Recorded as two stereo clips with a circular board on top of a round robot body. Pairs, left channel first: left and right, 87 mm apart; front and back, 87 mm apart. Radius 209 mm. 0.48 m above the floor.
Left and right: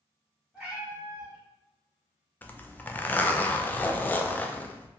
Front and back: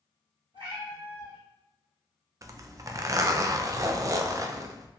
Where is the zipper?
150° left, 0.5 m.